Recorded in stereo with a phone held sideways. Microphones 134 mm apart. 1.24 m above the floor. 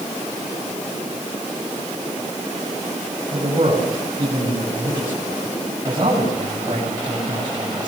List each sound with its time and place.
3.3 s a man speaking: 35° right (ahead or behind), 8.5 m